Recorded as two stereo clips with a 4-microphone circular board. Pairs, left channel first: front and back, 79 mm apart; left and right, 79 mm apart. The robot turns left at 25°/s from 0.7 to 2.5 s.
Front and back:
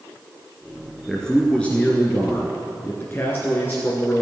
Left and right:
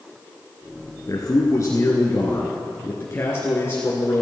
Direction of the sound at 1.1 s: 85° left.